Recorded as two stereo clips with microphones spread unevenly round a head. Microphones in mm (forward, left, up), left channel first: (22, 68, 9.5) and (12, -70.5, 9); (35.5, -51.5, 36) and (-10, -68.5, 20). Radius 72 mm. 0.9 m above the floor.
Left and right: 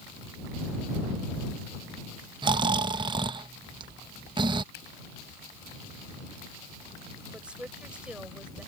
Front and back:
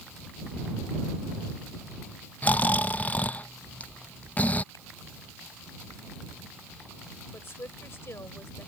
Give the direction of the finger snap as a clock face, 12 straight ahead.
9 o'clock.